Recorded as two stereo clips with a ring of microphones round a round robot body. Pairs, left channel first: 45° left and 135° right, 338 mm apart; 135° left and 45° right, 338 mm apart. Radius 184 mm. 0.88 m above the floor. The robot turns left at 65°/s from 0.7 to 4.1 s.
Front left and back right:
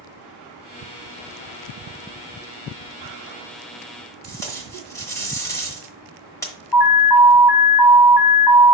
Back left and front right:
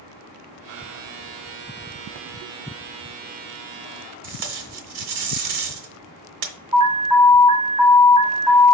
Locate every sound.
4.2 s tape being pulled: 35° right, 0.9 m
6.7 s an alarm: 35° left, 4 m